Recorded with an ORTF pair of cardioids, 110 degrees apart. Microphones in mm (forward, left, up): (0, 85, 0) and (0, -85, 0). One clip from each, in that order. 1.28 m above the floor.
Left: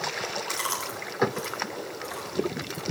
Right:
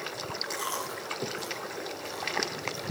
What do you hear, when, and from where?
0.5 s chewing: 55° left, 5 m